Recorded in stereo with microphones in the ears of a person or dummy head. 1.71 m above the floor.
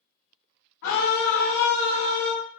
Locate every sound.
0.8 s a scream: 70° left (ahead or behind), 0.6 m